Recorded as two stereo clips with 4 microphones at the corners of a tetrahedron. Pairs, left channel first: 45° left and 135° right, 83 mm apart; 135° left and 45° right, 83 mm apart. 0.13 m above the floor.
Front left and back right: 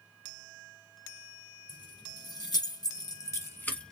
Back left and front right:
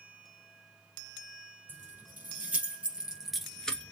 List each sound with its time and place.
1.7 s keys jangling: 20° left, 2.5 m; by 3.9 s 115° left, 1.0 m